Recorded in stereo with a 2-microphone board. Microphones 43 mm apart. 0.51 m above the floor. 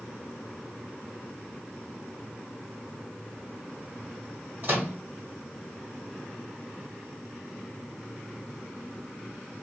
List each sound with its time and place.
4.6 s a microwave: 50° right (ahead or behind), 1.5 m